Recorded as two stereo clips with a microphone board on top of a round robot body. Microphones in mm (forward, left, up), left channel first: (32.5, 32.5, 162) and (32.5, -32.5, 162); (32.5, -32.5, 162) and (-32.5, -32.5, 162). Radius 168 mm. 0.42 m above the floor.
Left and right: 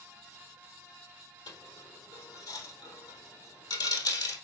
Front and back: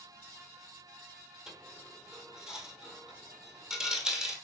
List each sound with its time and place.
1.5 s a dropped coin: 100° left, 1.3 m